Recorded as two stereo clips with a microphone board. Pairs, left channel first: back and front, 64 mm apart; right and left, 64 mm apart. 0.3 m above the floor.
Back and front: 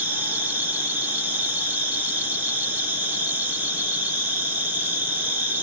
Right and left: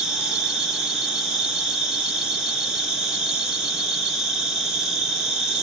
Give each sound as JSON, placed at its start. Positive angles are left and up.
{"t": 0.0, "sound": "an insect", "azimuth_deg": 20, "distance_m": 0.7}